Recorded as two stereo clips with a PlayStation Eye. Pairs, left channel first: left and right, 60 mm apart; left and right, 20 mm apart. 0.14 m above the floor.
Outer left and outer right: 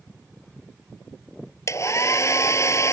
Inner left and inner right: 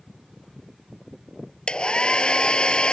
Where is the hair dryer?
55° left (ahead or behind).